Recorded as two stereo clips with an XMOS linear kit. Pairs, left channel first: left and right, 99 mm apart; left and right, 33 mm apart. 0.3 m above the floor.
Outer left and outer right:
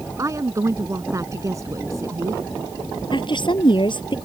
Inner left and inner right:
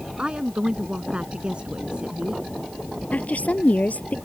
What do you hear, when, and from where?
0.2 s a woman speaking: 30° right (ahead or behind)
3.1 s a woman speaking: 50° left (ahead or behind)